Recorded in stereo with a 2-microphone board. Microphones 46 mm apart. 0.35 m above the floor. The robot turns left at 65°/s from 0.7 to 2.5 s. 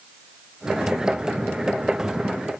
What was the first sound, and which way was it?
Only background noise.